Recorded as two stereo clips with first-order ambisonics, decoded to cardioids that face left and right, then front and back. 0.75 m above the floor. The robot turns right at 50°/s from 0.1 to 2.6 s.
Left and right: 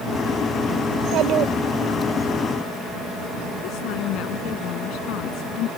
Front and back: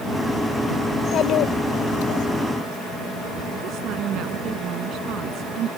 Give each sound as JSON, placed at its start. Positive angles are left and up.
{"t": 0.9, "sound": "a child speaking", "azimuth_deg": -65}
{"t": 3.6, "sound": "a woman speaking", "azimuth_deg": 130}